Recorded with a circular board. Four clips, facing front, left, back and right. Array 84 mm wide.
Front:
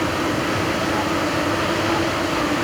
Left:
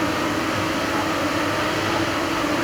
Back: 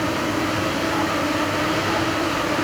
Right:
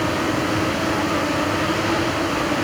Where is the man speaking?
No man speaking in this recording.